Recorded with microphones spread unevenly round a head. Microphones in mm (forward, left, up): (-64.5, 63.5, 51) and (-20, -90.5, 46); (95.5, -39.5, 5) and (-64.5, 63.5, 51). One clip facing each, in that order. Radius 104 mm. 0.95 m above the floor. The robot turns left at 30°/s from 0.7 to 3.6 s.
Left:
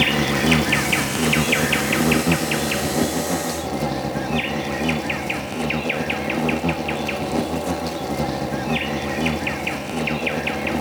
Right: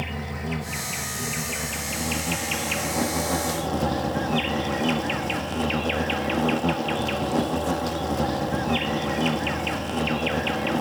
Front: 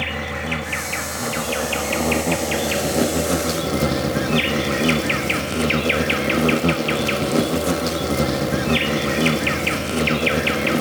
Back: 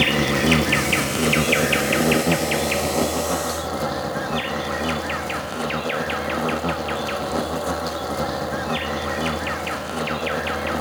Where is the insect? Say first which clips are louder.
Left 12 dB, back 8 dB; 110° left; by 10.8 s 25° left.